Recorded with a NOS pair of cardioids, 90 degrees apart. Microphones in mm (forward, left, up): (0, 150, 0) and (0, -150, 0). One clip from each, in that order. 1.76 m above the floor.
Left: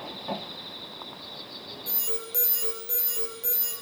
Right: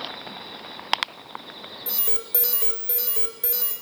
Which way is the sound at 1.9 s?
35° right.